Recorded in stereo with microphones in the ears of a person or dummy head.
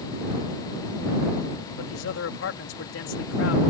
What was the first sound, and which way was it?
A man speaking, 65° left (ahead or behind).